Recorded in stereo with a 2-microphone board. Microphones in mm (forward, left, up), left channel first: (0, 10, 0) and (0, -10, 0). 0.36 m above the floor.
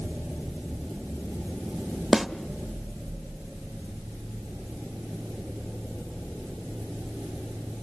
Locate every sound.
2.1 s a snare drum: 20° right (ahead or behind), 1.1 m